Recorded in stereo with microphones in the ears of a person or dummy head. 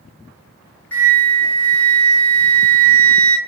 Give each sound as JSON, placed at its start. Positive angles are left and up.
{"t": 0.9, "sound": "a flute", "side_deg": 10, "distance_m": 0.7}